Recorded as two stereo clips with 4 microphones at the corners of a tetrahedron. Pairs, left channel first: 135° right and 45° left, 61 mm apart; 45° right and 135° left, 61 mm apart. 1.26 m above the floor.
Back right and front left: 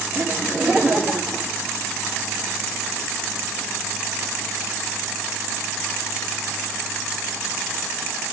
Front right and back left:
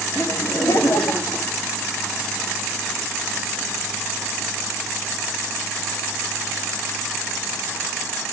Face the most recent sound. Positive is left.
turn(degrees=-35)